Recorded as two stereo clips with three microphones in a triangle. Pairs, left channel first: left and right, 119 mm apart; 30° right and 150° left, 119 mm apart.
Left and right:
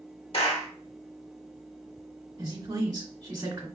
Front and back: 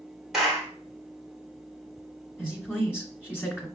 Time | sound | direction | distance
0.3 | a clap | 65° left | 1.3 m
2.4 | a woman speaking | 95° right | 1.4 m